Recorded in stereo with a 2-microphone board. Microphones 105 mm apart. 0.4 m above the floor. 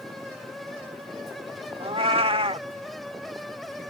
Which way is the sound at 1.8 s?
65° right (ahead or behind).